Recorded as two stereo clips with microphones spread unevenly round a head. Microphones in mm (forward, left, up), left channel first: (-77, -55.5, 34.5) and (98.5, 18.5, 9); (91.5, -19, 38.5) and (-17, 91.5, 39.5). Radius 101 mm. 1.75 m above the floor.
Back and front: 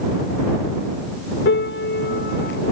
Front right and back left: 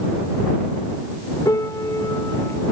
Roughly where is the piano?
Behind right.